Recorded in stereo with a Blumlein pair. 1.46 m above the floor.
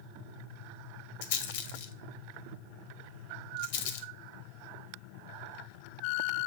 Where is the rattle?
50° left, 0.9 m.